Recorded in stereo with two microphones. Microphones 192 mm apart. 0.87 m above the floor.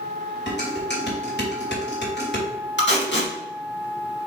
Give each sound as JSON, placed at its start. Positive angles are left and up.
{"t": 0.5, "sound": "dishes clattering", "side_deg": 65, "distance_m": 3.0}
{"t": 2.8, "sound": "tape being pulled", "side_deg": 70, "distance_m": 3.0}